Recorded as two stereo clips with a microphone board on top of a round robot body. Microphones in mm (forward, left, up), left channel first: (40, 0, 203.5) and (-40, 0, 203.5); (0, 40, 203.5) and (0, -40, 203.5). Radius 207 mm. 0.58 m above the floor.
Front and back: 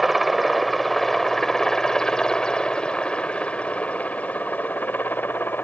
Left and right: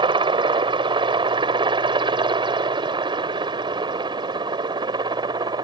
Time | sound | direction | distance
0.0 | a helicopter | 90° right | ?